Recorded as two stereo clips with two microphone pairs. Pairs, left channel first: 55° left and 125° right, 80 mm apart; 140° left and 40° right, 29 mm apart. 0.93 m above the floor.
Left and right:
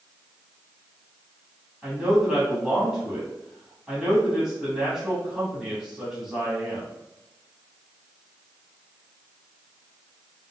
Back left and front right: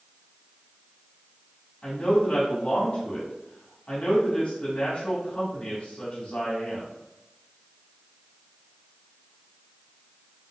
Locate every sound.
1.8 s a man speaking: 155° left, 1.3 m